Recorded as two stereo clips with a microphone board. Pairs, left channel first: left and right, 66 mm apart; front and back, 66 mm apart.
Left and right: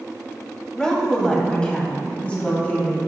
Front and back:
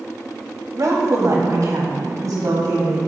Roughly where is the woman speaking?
Behind.